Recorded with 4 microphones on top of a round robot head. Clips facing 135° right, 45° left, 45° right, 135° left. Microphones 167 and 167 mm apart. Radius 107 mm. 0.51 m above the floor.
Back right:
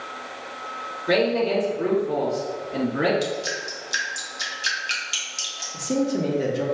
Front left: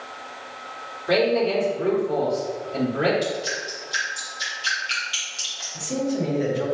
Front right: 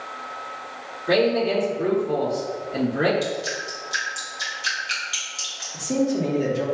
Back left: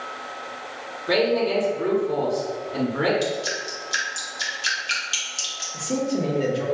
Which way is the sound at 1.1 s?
120° right.